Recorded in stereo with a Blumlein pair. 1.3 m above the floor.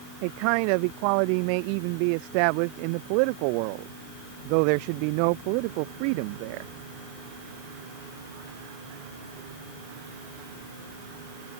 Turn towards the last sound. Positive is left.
turn(degrees=-45)